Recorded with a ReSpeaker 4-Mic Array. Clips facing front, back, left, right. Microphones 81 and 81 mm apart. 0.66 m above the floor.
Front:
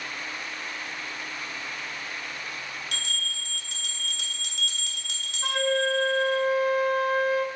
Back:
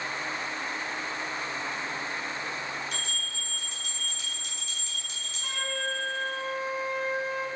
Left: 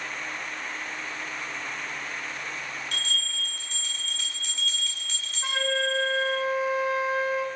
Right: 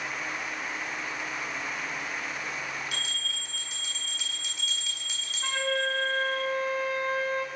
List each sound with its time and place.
2.9 s a bell: 10° right, 1.7 m
5.4 s a flute: 10° left, 0.7 m